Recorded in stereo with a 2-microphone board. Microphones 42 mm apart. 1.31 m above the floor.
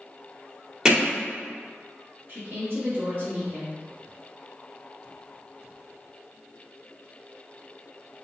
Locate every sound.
0.8 s hammering: 15° right (ahead or behind), 1.6 m
2.3 s a woman speaking: 55° right (ahead or behind), 1.8 m